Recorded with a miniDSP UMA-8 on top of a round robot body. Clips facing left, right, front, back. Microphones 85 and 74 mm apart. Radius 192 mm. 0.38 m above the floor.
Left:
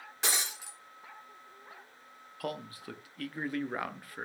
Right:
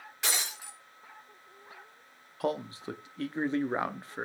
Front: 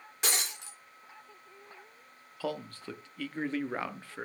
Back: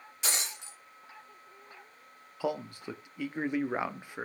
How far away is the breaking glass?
About 5.5 m.